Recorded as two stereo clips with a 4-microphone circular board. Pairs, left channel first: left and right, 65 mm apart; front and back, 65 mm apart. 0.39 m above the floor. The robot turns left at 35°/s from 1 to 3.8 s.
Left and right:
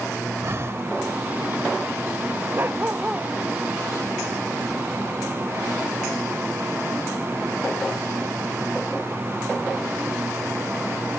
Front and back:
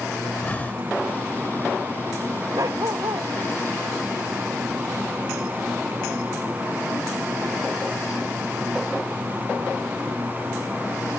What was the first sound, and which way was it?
Breathing, 60° right.